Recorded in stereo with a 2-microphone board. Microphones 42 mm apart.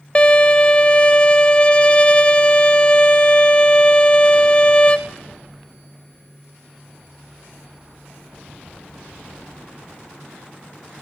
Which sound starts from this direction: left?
A violin, at 0.1 s.